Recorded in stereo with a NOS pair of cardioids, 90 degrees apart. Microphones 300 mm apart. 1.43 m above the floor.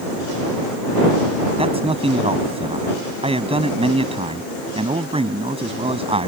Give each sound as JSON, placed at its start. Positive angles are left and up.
{"t": 1.6, "sound": "a man speaking", "azimuth_deg": -15}